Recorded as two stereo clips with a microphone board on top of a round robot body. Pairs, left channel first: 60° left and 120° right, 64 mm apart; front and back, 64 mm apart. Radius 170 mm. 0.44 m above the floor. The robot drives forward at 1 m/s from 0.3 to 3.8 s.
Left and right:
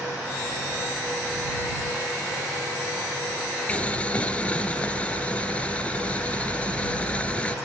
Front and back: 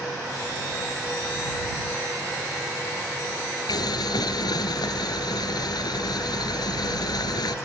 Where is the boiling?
10° right; by 7.5 s 15° right.